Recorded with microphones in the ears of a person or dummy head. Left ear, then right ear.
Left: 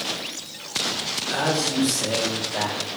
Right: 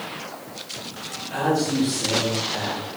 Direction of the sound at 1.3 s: 55° left (ahead or behind).